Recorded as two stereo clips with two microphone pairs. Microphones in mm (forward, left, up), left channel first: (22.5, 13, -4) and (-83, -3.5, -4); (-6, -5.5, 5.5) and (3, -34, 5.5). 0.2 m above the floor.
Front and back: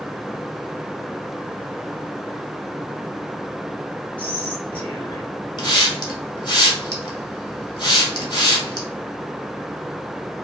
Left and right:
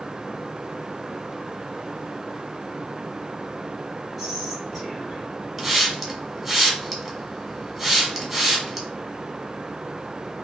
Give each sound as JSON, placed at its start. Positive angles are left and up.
{"t": 4.2, "sound": "whispering", "azimuth_deg": -40, "distance_m": 1.0}
{"t": 5.6, "sound": "a hiss", "azimuth_deg": -5, "distance_m": 0.8}